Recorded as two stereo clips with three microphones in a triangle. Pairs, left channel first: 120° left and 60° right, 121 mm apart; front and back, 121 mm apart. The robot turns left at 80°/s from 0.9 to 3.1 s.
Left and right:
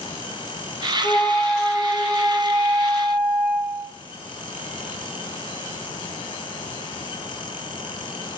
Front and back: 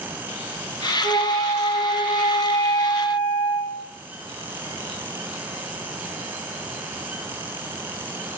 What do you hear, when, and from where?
1.0 s a flute: 70° left, 1.7 m; by 3.9 s 95° right, 1.7 m